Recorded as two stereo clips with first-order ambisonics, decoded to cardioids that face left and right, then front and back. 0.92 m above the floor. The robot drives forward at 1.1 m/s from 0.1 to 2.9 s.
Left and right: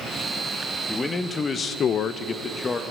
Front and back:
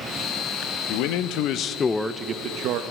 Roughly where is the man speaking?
Ahead.